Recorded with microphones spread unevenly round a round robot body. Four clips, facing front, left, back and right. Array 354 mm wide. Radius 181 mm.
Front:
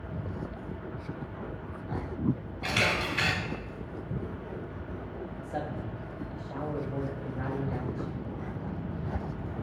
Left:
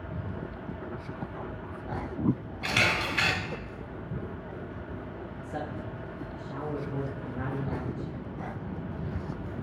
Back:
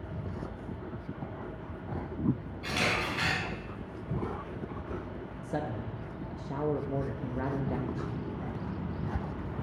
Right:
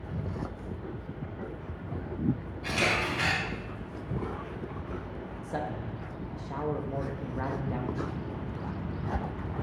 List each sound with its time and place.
2.6 s a camera shutter: 50° left, 3 m
5.4 s a man speaking: 175° left, 1.2 m